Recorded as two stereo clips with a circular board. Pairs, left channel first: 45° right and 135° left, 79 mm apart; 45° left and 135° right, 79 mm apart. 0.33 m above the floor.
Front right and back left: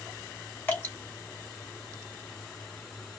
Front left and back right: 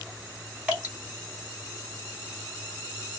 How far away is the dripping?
About 1.6 m.